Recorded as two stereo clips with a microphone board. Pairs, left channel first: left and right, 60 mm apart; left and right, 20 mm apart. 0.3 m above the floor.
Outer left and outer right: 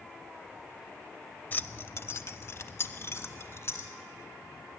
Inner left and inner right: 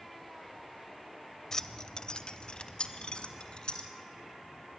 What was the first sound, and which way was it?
Keys jangling, 25° left (ahead or behind).